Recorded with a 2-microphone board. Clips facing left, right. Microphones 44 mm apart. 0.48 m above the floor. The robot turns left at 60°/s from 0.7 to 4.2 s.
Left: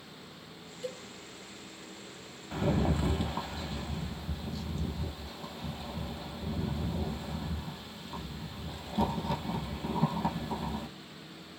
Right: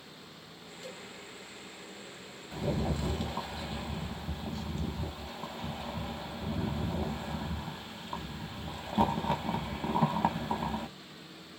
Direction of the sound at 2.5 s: 55° left.